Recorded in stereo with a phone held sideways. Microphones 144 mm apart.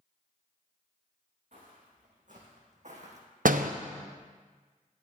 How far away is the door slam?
About 0.6 m.